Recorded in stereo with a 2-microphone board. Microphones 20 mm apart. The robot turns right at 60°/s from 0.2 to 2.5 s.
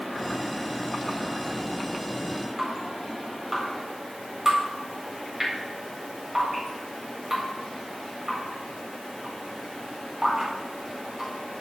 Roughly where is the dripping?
Right.